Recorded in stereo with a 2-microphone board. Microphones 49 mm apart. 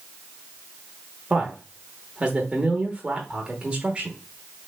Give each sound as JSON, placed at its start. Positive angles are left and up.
{"t": 1.3, "sound": "a man speaking", "side_deg": -25, "distance_m": 0.9}